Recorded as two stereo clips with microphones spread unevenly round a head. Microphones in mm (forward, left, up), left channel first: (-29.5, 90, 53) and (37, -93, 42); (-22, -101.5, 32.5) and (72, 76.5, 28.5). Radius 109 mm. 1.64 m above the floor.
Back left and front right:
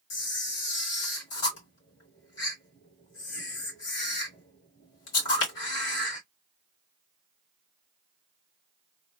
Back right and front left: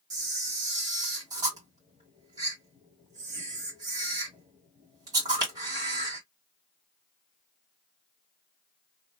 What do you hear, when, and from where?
0.1 s a camera shutter: 135° left, 2.5 m